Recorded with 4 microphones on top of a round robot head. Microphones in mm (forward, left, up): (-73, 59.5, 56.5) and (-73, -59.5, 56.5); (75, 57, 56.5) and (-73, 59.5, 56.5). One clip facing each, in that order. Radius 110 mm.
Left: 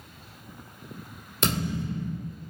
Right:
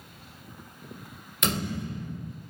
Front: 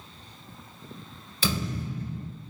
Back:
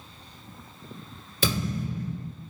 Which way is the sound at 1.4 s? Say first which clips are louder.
Left 2 dB, back 2 dB; 140° left.